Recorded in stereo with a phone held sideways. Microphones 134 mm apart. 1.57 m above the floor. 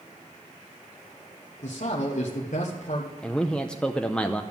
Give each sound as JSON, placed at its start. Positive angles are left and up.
{"t": 1.6, "sound": "a man speaking", "side_deg": 65, "distance_m": 1.3}
{"t": 3.2, "sound": "a man speaking", "side_deg": 5, "distance_m": 0.6}